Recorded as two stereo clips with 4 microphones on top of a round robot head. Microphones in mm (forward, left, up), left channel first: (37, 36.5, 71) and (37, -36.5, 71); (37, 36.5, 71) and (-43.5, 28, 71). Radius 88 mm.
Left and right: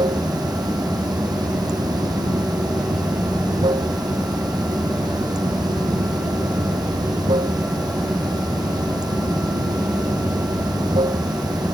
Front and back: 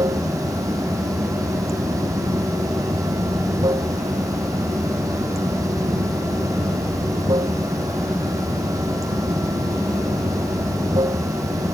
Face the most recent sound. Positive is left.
turn(degrees=-120)